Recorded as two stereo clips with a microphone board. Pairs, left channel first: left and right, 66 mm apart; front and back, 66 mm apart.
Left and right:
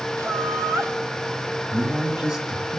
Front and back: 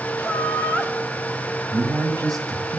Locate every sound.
0.2 s laughter: 65° right, 2.5 m
1.7 s a man speaking: 165° right, 2.5 m